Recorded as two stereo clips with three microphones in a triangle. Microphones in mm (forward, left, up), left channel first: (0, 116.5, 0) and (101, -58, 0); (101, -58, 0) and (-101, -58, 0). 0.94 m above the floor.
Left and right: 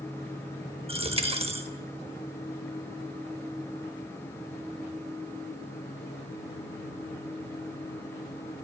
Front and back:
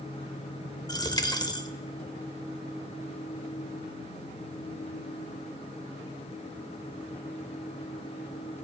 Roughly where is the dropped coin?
Ahead right.